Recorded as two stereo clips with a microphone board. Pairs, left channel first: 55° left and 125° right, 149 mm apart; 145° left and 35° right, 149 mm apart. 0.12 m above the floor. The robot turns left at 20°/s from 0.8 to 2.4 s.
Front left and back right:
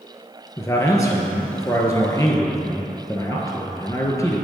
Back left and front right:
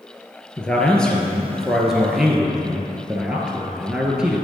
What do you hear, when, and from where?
0.6 s a man speaking: 75° left, 1.1 m; by 4.5 s 40° left, 1.1 m